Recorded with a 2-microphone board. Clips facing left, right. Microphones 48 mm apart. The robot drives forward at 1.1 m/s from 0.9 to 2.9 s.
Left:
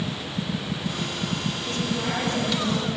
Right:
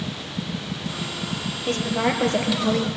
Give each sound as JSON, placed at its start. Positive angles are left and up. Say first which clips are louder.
{"t": 1.7, "sound": "a woman speaking", "louder": "right 7 dB", "side_deg": -45, "distance_m": 4.0}